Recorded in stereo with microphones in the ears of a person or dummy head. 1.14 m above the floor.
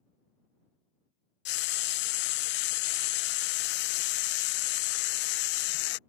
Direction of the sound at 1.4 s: 55° left (ahead or behind).